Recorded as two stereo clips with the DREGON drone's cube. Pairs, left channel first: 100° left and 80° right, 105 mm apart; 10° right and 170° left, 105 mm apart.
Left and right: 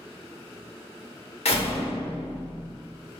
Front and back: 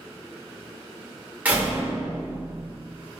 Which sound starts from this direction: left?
A door slam, at 1.4 s.